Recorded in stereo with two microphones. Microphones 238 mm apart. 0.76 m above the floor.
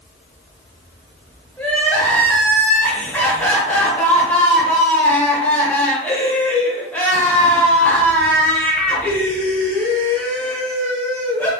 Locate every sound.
1.6 s crying: 10° left (ahead or behind), 1.3 m